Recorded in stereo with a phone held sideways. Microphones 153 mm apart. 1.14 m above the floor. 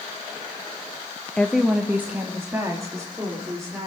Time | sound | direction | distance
1.4 | a woman speaking | 10° left (ahead or behind) | 0.6 m